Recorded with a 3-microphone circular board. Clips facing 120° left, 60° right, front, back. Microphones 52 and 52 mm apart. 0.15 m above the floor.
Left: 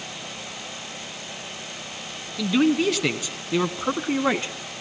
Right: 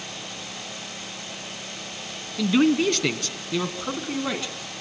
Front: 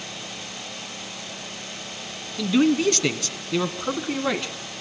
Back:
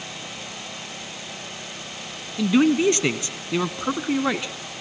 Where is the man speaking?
135° right, 1.1 m; by 4.5 s 115° left, 1.2 m.